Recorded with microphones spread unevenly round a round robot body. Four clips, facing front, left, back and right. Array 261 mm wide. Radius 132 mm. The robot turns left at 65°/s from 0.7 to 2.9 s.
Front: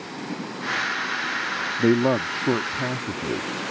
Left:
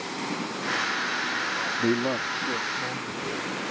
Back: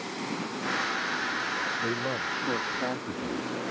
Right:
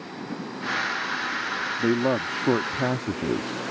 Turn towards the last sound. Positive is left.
turn(degrees=-70)